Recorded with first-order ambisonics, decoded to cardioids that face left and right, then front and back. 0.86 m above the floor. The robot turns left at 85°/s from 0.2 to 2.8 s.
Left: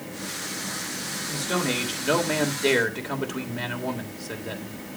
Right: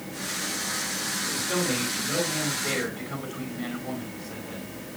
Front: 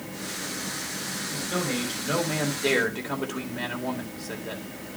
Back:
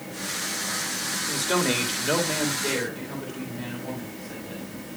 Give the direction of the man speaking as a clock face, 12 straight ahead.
6 o'clock.